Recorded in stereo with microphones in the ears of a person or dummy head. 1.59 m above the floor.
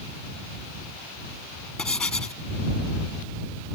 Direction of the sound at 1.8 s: 5° left (ahead or behind).